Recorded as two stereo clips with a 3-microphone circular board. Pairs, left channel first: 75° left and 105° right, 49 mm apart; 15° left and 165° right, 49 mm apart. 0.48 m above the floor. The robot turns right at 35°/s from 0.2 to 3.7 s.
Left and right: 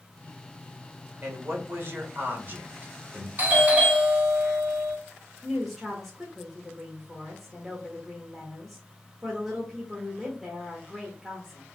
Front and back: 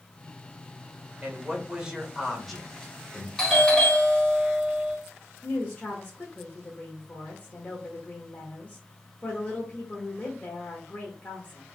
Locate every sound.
1.2 s a man speaking: 115° right, 1.5 m; by 3.3 s 45° right, 1.5 m
3.4 s a doorbell: 65° right, 3 m; by 5.0 s 55° right, 3 m
5.4 s a woman speaking: 25° right, 1.5 m